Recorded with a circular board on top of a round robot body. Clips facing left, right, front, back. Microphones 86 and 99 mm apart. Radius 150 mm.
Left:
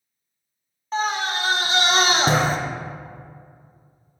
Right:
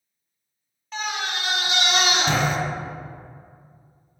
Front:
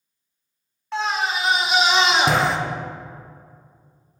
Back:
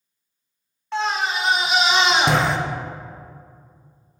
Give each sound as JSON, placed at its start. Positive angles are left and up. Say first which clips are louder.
{"t": 0.9, "sound": "a scream", "louder": "left 5 dB, even", "azimuth_deg": 90, "distance_m": 0.6}